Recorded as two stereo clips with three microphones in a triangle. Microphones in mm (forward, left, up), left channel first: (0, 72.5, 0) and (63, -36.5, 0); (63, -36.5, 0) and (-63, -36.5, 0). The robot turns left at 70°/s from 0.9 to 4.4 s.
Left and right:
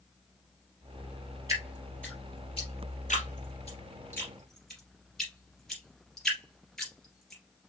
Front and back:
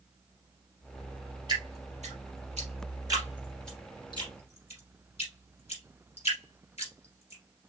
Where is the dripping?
125° right, 2.5 m; by 7.7 s 35° left, 2.5 m.